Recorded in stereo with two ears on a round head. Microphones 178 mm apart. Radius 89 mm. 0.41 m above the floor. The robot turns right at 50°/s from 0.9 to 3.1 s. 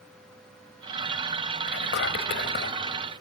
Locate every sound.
1.7 s whispering: 70° left, 1.9 m; by 2.8 s 125° left, 1.9 m